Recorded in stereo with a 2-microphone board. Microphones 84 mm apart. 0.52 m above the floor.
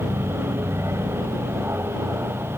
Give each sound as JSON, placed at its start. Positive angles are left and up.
{"t": 0.0, "sound": "an aircraft", "side_deg": -35}